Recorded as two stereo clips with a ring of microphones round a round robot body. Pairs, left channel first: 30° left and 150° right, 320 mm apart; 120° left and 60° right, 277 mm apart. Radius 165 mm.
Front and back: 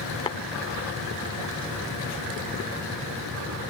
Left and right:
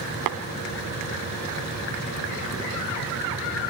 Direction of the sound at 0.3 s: 45° right.